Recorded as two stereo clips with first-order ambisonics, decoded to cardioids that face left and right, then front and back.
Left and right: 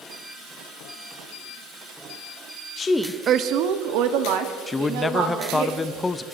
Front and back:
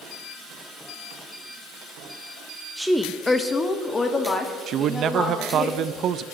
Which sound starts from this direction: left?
A woman speaking, at 2.8 s.